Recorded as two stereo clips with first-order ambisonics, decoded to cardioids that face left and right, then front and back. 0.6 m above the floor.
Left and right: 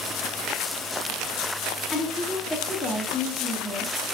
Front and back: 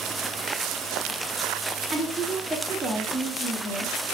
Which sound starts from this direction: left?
A woman speaking, at 1.9 s.